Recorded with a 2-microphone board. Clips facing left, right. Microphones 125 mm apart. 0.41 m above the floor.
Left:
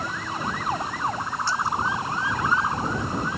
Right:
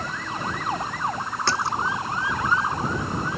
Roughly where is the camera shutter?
I don't hear a camera shutter.